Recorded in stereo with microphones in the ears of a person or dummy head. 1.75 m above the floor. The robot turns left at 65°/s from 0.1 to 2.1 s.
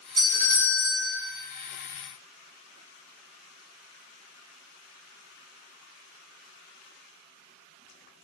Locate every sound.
0.2 s a doorbell: 120° right, 1.3 m; by 1.1 s straight behind, 1.3 m